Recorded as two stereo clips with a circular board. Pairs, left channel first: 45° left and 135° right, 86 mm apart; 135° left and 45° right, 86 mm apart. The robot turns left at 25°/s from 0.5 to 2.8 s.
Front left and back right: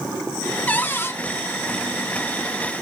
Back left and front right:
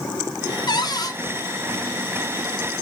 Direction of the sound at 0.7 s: 115° left.